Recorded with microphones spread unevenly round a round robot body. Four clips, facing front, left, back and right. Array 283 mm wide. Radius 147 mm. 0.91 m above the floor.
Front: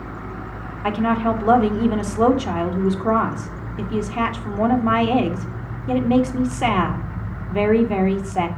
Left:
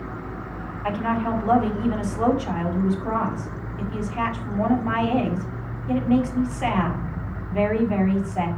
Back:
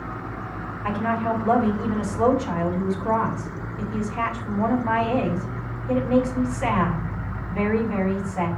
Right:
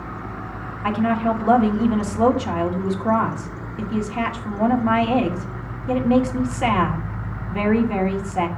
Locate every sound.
0.8 s a woman speaking: 35° right, 2 m